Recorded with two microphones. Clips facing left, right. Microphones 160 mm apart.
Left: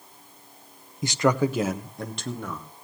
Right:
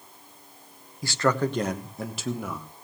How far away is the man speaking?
About 1.0 m.